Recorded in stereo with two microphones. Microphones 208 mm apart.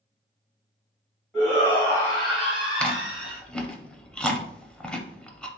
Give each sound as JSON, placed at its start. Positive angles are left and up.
{"t": 1.3, "sound": "a shout", "side_deg": -5, "distance_m": 1.8}
{"t": 2.8, "sound": "chewing", "side_deg": 5, "distance_m": 0.5}